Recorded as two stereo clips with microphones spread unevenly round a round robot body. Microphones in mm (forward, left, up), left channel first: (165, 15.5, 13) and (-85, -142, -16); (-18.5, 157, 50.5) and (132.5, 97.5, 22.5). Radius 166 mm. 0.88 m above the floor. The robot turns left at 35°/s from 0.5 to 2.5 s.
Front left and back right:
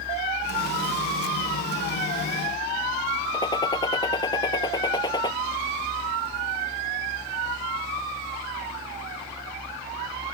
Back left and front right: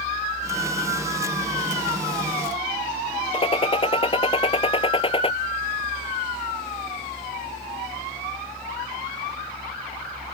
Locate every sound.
3.3 s a gunshot: 110° left